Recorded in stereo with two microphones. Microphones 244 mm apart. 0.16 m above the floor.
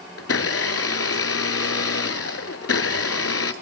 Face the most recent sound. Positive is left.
turn(degrees=70)  # may be behind; listen again after turning